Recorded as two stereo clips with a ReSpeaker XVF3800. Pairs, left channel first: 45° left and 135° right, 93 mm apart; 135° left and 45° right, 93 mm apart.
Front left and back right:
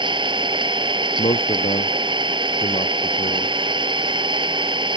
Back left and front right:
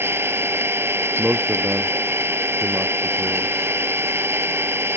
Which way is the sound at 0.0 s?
110° right.